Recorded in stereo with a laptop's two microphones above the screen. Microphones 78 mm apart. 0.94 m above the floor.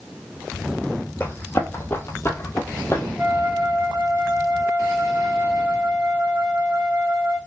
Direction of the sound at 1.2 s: 25° left (ahead or behind).